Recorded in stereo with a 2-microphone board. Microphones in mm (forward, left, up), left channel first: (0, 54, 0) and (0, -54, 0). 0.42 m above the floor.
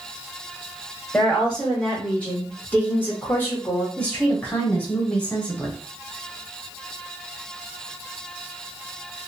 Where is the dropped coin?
No dropped coin in this recording.